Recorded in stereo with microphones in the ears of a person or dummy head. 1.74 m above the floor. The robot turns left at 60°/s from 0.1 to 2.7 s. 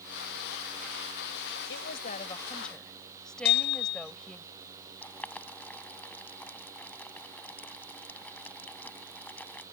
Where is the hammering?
65° left (ahead or behind).